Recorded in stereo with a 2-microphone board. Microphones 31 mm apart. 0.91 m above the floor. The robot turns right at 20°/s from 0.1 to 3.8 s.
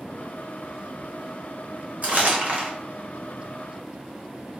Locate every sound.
2.0 s crumpling: 60° right (ahead or behind), 1.1 m; by 2.7 s 50° right (ahead or behind), 1.1 m